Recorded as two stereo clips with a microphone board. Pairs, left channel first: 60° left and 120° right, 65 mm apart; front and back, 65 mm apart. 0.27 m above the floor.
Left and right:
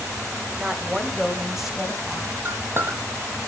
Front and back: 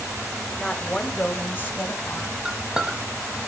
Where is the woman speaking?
70° right, 1.0 m; by 2.4 s 25° right, 1.4 m.